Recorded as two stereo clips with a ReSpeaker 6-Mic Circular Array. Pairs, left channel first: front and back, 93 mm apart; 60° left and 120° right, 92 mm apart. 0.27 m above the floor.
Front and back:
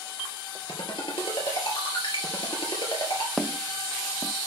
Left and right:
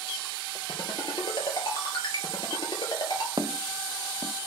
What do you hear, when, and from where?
0.7 s a ringtone: 25° left, 2.5 m
3.4 s footsteps: 85° right, 0.6 m